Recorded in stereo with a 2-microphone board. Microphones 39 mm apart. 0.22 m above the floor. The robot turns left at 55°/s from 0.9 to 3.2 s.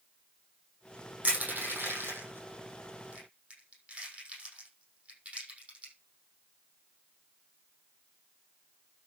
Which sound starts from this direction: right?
Crushing, at 1.2 s.